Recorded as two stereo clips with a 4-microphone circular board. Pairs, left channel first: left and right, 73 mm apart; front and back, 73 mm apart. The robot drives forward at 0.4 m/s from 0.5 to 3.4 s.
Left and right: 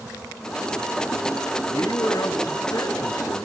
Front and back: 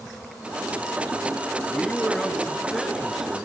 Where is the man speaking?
75° left, 2 m; by 3.4 s 95° left, 2 m.